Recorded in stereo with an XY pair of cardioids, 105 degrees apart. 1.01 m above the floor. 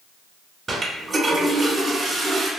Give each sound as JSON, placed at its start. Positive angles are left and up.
{"t": 0.7, "sound": "a toilet flushing", "azimuth_deg": -40, "distance_m": 1.1}